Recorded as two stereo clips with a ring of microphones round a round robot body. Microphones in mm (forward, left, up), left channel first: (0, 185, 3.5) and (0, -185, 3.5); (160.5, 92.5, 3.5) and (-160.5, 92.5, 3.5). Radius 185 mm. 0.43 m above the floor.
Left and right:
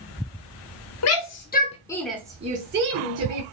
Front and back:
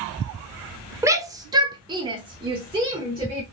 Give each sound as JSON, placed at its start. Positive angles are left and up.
{"t": 1.0, "sound": "a shout", "azimuth_deg": 105, "distance_m": 1.0}